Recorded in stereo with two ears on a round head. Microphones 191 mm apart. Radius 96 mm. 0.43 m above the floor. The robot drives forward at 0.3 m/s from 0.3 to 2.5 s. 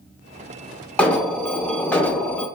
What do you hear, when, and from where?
1.0 s an alarm: 5° left (ahead or behind), 0.5 m